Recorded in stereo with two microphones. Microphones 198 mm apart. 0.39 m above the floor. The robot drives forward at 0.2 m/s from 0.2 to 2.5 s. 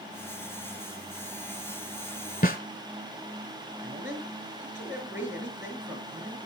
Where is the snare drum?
50° left (ahead or behind), 1.4 m.